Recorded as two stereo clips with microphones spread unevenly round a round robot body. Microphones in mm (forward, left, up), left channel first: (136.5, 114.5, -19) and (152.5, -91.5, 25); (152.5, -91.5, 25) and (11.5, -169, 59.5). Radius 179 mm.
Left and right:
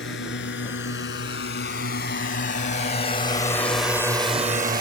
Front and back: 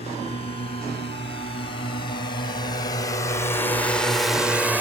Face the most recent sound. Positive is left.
turn(degrees=-65)